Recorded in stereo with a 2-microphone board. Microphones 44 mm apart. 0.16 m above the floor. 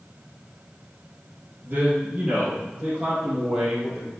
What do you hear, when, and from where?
1.6 s a man speaking: 30° right (ahead or behind), 3 m; by 4.1 s centre (ahead or behind), 4 m